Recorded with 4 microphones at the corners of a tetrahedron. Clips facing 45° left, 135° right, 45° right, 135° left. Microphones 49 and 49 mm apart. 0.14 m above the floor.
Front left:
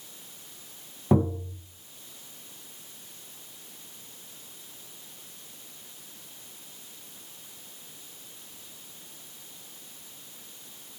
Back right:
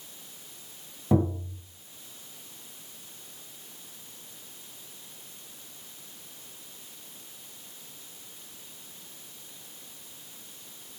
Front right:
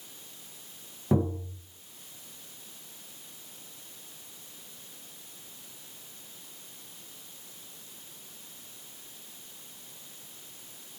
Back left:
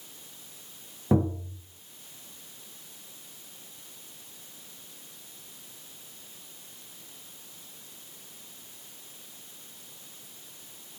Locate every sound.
1.1 s tapping: 65° left, 1.4 m